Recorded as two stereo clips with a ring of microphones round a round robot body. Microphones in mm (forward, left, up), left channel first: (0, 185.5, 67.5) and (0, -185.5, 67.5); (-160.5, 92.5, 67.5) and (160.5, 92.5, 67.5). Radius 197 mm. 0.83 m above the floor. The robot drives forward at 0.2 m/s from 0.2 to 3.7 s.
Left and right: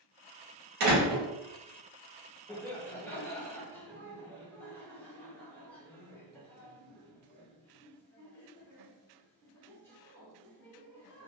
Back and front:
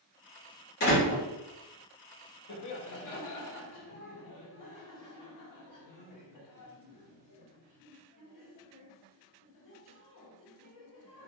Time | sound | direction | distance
0.8 | a door slam | 120° right | 0.9 m
2.5 | laughter | 170° left | 0.6 m